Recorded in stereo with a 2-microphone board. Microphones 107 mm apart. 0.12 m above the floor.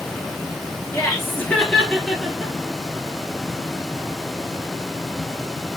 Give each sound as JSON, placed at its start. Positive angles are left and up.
{"t": 0.9, "sound": "laughter", "side_deg": 25, "distance_m": 1.3}